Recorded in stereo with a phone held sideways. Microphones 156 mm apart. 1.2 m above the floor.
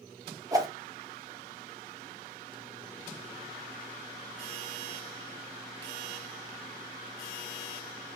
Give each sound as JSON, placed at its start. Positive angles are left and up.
{"t": 0.5, "sound": "a whoosh", "side_deg": -20, "distance_m": 0.7}